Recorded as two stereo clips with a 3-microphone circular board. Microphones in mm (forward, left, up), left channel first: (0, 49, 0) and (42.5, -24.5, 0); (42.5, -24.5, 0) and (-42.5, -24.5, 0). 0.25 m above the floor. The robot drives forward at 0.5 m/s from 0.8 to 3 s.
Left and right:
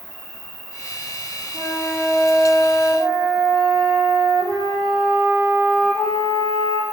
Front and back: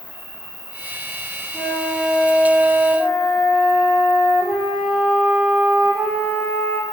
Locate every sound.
0.0 s an insect: 150° left, 1.2 m; by 6.9 s 170° left, 1.8 m
1.5 s a flute: 85° right, 1.6 m; by 6.8 s 115° right, 1.7 m